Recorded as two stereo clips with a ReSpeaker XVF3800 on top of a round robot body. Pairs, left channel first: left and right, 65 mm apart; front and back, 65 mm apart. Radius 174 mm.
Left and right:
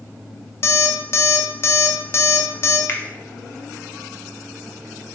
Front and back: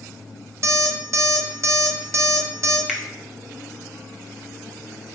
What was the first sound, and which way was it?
An alarm clock, 135° left.